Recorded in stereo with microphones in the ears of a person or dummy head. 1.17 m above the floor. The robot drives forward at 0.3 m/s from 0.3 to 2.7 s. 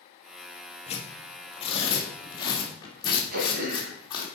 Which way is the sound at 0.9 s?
30° left (ahead or behind).